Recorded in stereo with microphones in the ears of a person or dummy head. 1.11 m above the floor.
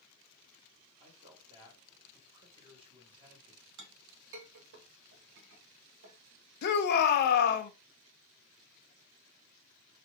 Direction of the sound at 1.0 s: 30° right (ahead or behind).